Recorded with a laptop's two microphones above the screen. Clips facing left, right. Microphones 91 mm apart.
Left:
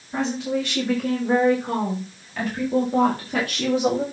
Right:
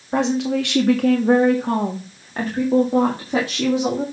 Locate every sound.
0.1 s a woman speaking: 80° right, 1.9 m; by 4.0 s 15° right (ahead or behind), 2.5 m